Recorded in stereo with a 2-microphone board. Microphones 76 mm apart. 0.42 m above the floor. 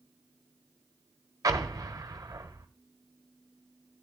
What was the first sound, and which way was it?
An explosion, 55° right (ahead or behind).